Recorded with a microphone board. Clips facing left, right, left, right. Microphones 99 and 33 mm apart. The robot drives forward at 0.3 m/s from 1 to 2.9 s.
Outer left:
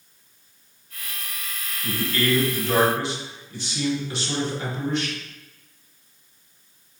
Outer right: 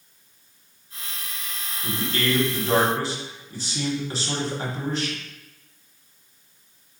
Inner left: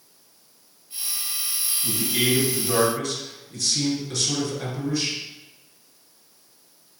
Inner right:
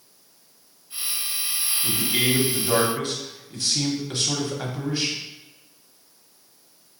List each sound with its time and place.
1.8 s a man speaking: 35° right (ahead or behind), 1.1 m; by 5.2 s 40° right (ahead or behind), 1.1 m